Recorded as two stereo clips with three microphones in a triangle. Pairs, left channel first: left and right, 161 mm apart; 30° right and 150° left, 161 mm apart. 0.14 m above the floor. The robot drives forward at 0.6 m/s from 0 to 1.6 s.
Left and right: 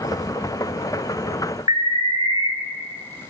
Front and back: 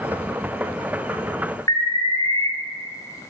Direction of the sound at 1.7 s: 65° right.